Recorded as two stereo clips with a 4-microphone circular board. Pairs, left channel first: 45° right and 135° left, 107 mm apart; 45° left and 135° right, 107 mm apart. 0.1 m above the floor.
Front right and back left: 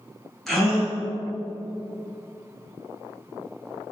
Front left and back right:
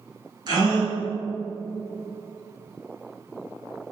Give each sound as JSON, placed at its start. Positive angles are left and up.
{"t": 0.5, "sound": "a gasp", "azimuth_deg": -130, "distance_m": 2.0}